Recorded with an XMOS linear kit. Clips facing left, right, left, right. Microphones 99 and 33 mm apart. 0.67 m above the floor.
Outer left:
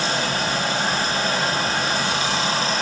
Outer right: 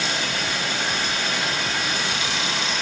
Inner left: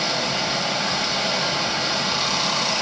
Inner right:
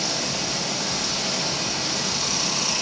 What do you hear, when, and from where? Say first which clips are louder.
0.0 s running water: outer left 4 dB, inner left 4 dB; 35° left (ahead or behind), 3 m